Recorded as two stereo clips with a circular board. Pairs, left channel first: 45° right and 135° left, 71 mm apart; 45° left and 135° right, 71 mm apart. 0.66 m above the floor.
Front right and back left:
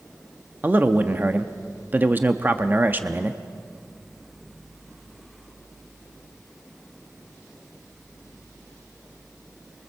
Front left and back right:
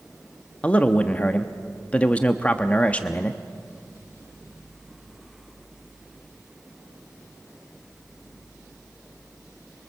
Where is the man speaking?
100° left, 0.8 m.